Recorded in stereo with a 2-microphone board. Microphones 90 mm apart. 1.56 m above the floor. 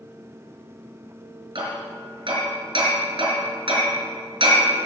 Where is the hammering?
70° right (ahead or behind), 4.5 m.